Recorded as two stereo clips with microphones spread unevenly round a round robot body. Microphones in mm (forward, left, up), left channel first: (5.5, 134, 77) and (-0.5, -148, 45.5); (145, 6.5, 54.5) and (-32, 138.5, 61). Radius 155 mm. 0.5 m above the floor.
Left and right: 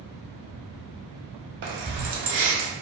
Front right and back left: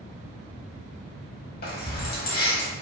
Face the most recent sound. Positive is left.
turn(degrees=-65)